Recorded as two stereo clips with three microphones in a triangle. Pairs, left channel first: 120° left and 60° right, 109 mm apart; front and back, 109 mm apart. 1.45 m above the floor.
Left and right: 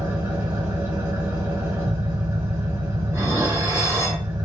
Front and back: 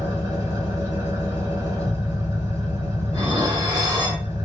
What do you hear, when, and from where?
0.0 s an engine running: 125° right, 1.6 m
3.1 s dishes clattering: 130° right, 1.7 m